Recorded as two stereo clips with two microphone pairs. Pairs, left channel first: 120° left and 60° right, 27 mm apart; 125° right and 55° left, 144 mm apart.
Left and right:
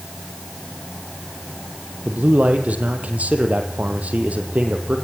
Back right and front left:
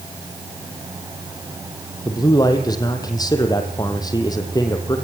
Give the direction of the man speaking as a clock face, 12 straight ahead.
2 o'clock.